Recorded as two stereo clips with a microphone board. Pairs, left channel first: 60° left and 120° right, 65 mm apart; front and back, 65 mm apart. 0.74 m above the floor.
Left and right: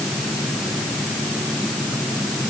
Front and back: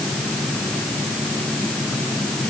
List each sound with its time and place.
Only background noise.